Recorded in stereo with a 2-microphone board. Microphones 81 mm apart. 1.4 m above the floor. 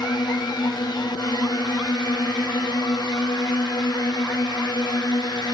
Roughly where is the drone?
Left.